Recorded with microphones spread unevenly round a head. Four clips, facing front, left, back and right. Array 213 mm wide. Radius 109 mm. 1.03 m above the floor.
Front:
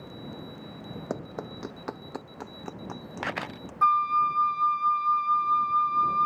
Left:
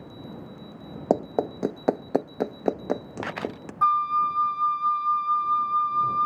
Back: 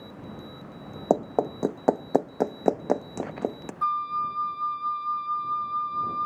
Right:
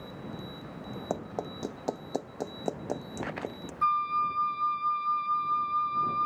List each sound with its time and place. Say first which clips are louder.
1.1 s running footsteps: left 12 dB, back 13 dB; 130° left; by 3.7 s 155° left
3.8 s a flute: left 5 dB, front 5 dB; 60° left